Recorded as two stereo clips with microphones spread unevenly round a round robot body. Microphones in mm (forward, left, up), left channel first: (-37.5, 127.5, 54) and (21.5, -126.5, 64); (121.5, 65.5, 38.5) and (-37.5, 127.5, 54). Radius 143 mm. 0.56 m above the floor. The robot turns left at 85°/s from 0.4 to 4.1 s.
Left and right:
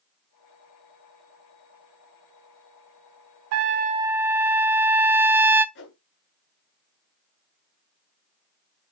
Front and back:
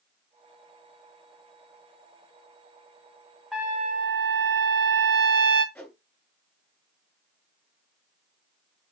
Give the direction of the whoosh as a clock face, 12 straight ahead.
10 o'clock.